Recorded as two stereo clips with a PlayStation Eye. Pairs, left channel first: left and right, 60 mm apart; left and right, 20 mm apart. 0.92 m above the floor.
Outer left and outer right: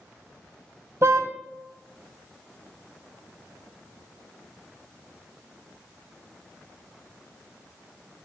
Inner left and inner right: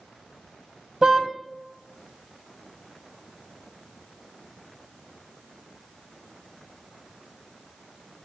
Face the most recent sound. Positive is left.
turn(degrees=-55)  # may be behind; listen again after turning